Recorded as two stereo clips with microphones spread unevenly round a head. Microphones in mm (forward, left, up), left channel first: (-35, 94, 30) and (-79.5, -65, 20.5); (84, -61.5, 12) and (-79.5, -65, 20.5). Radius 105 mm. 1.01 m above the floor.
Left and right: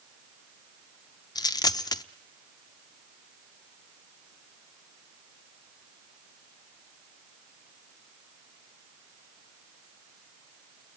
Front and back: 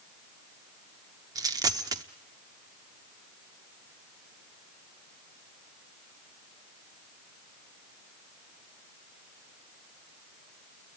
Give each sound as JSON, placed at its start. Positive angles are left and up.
{"t": 1.4, "sound": "a dropped coin", "azimuth_deg": 125, "distance_m": 0.6}